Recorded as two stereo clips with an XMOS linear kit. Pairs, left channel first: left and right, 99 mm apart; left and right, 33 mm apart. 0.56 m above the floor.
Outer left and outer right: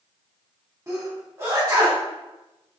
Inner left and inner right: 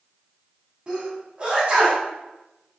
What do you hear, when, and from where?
0.9 s a sneeze: 25° right (ahead or behind), 1.8 m